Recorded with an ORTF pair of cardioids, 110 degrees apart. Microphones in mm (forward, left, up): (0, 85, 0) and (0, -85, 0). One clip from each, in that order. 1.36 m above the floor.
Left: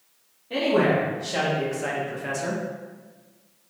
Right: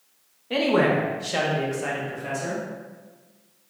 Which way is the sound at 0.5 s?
35° right.